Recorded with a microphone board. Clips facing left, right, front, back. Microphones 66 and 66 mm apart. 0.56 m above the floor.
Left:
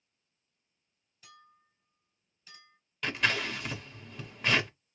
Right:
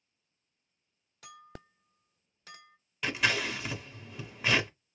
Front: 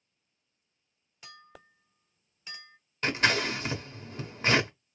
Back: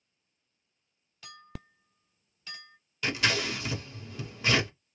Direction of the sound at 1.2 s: 75° right.